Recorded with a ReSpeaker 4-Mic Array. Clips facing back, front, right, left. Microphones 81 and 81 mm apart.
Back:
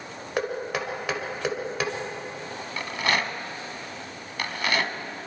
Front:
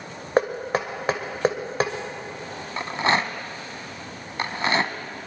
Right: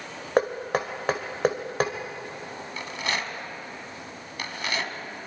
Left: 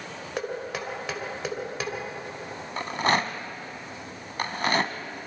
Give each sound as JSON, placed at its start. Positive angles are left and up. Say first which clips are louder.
{"t": 0.4, "sound": "knocking", "louder": "front 6 dB, right 8 dB", "azimuth_deg": -50, "distance_m": 2.0}
{"t": 2.8, "sound": "a rattle", "louder": "front 4 dB, left 7 dB", "azimuth_deg": 55, "distance_m": 1.1}